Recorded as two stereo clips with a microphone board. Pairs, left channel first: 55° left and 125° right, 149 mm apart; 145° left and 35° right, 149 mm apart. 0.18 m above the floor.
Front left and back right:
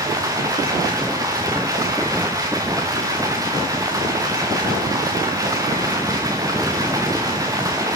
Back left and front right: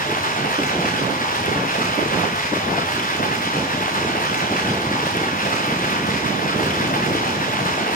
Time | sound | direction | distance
0.0 | running water | 170° left | 3.5 m